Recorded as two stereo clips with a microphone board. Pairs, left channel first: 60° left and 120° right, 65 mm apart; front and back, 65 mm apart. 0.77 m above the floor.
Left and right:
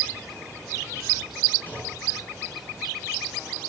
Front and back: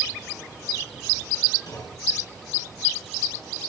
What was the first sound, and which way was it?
A clunk, 5° right.